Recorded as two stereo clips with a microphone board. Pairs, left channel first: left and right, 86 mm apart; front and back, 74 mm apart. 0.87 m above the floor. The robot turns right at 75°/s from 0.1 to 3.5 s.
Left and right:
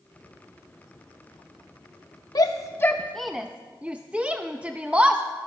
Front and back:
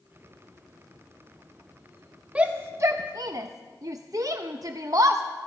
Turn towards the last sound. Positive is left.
turn(degrees=-165)